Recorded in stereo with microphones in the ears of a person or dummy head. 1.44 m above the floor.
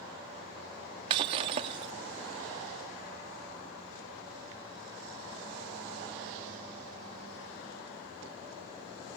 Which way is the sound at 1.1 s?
25° right (ahead or behind).